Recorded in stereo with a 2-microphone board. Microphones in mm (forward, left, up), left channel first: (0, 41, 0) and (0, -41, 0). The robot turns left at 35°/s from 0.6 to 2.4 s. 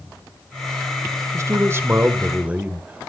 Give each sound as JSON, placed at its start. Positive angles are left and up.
{"t": 1.3, "sound": "a man speaking", "azimuth_deg": -120, "distance_m": 1.5}